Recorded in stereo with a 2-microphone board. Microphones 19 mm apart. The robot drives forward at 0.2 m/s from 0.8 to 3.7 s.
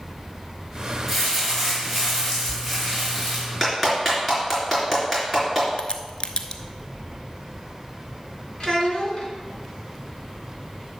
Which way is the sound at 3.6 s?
5° left (ahead or behind).